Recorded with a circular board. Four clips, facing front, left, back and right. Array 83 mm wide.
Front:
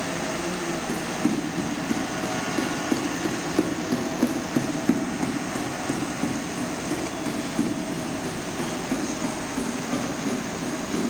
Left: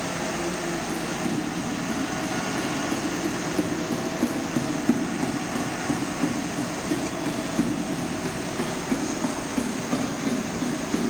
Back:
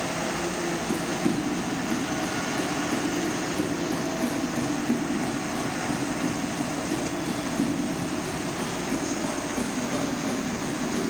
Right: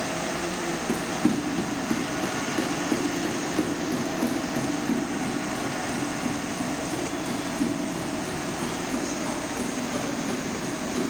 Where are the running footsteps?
65° right, 4 m; by 11.1 s 60° left, 9.5 m.